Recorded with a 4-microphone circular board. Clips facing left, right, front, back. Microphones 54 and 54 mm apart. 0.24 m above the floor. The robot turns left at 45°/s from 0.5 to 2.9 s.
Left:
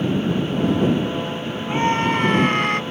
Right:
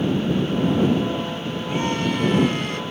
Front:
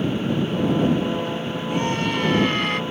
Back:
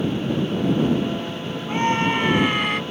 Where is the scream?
145° left; by 2.8 s 95° left.